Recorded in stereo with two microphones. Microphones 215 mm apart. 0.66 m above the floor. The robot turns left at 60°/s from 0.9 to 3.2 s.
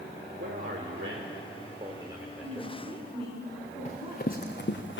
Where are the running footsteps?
35° left (ahead or behind), 3 m; by 5.0 s 65° left (ahead or behind), 2 m.